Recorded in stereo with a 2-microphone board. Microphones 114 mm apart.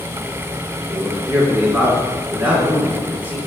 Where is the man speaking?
15° right (ahead or behind), 3 m.